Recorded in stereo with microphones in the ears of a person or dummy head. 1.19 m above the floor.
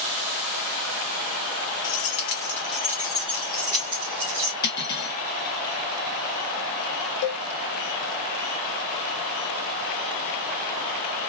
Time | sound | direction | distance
1.8 | keys jangling | 45° left (ahead or behind) | 0.9 m
4.6 | cutlery clinking | 25° left (ahead or behind) | 0.6 m
7.2 | a cowbell | 70° left (ahead or behind) | 0.7 m